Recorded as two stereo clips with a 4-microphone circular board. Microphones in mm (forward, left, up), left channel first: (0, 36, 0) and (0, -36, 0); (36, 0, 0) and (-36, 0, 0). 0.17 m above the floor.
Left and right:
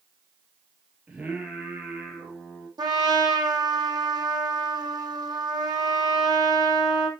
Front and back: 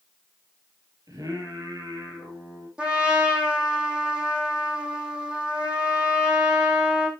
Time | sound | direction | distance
1.1 | singing | 160° right | 4 m
2.8 | a trumpet | 105° right | 2 m